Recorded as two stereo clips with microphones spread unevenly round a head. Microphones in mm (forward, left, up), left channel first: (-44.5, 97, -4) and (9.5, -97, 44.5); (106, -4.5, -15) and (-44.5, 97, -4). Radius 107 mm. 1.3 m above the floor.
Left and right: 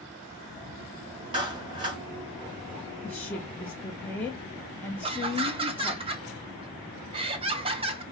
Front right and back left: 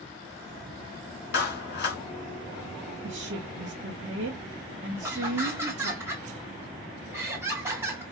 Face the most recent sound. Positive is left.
turn(degrees=-135)